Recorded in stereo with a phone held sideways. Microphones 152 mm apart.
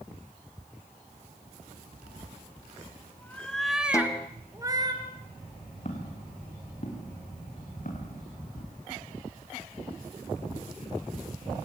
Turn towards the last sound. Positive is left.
turn(degrees=65)  # may be behind; listen again after turning